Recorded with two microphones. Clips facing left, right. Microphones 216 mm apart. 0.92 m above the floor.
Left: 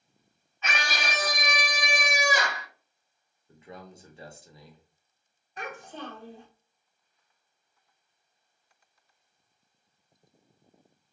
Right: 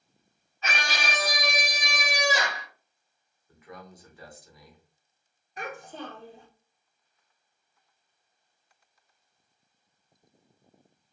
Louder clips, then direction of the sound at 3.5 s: Left 1 dB; 30° left (ahead or behind).